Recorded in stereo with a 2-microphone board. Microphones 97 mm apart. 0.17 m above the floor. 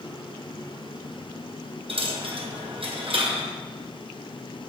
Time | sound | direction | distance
1.9 | a dropped coin | 70° right (ahead or behind) | 1.8 m